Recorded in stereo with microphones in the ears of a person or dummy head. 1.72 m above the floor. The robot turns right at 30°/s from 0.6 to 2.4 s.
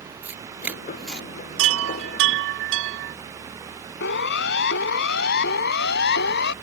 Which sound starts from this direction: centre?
Tearing paper, at 0.2 s.